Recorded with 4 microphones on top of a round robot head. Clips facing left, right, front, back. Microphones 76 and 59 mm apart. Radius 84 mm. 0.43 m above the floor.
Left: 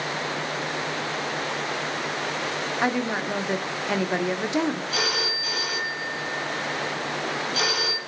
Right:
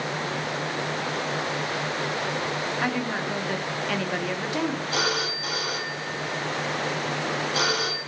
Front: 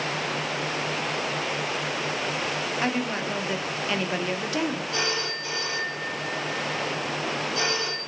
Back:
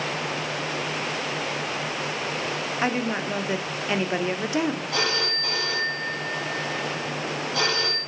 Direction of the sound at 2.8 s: 135° left.